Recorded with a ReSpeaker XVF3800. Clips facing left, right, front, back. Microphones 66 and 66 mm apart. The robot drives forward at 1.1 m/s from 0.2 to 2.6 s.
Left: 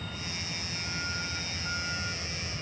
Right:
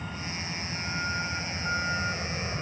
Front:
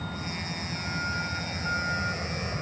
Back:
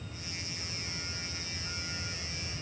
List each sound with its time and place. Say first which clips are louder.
0.0 s a vehicle: right 3 dB, front 10 dB; 20° right; by 2.6 s 35° right